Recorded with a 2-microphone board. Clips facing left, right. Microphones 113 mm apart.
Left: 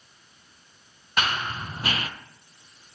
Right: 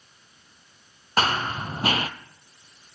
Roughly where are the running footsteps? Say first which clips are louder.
Right 4 dB; right.